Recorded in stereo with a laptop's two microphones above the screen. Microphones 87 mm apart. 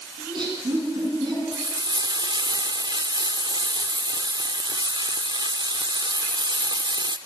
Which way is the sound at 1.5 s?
60° right (ahead or behind).